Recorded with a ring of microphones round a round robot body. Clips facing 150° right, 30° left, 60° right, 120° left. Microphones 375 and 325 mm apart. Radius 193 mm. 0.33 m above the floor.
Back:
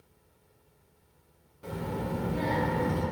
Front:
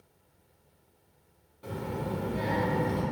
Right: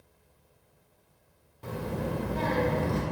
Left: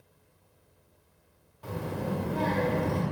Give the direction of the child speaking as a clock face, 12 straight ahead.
2 o'clock.